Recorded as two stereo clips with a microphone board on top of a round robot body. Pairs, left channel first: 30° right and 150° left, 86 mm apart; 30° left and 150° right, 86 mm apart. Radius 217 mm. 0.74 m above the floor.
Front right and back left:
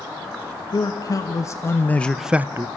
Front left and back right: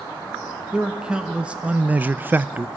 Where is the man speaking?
70° right, 1.3 m; by 2.7 s 150° left, 0.7 m.